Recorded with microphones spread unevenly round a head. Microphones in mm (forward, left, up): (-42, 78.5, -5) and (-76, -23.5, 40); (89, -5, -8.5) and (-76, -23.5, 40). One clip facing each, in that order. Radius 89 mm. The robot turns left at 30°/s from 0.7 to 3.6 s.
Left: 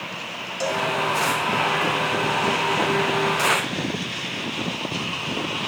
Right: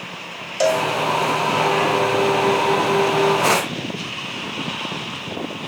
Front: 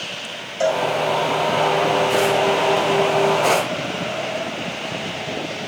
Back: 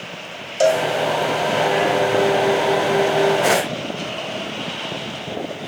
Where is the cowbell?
130° right, 0.6 m; by 0.9 s 135° right, 0.6 m.